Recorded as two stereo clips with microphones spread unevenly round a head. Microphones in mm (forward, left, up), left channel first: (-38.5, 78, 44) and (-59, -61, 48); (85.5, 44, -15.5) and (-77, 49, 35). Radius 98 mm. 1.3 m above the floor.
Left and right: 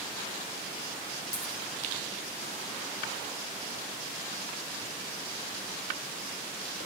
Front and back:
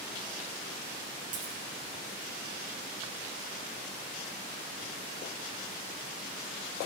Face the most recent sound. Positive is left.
turn(degrees=145)